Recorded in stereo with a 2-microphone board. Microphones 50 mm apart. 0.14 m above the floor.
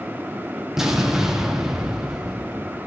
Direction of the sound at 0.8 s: 10° right (ahead or behind).